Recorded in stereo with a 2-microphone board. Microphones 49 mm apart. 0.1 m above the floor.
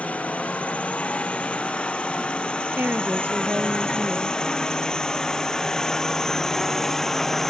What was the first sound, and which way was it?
A drone, 30° left (ahead or behind).